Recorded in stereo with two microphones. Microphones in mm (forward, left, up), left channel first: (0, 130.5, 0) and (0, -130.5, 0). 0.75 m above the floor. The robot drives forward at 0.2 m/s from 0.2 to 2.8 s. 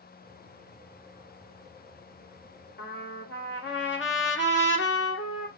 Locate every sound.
2.8 s a trumpet: 50° left (ahead or behind), 1.7 m